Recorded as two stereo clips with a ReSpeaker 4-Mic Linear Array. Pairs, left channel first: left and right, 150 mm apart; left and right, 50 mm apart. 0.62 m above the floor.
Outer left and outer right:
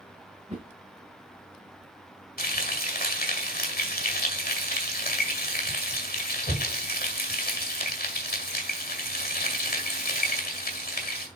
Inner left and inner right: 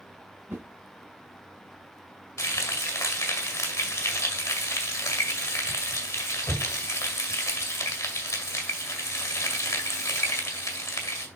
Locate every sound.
0.5 s a whoosh: 45° right (ahead or behind), 2.5 m
2.4 s frying: 75° left (ahead or behind), 1.9 m